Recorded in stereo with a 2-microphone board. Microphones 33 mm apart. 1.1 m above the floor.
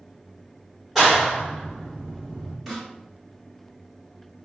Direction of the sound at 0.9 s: 10° right (ahead or behind).